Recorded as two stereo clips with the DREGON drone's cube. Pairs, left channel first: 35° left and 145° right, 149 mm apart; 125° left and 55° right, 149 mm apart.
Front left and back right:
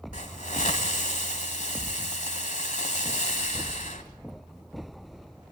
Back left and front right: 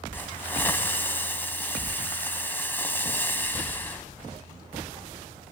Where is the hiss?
50° left, 1.8 m.